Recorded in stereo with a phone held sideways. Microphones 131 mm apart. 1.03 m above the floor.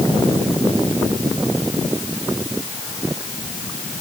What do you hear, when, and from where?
Only background noise.